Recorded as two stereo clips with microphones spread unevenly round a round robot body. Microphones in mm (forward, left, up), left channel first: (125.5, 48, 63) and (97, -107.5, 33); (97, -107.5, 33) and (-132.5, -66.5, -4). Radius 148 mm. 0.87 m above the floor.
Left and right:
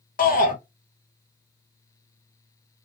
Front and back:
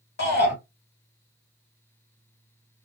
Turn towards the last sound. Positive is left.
turn(degrees=50)